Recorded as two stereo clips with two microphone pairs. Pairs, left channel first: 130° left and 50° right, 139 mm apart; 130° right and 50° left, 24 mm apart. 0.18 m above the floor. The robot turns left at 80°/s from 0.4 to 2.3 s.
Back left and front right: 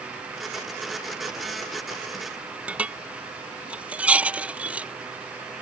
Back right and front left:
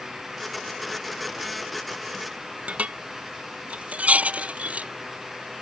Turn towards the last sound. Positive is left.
turn(degrees=30)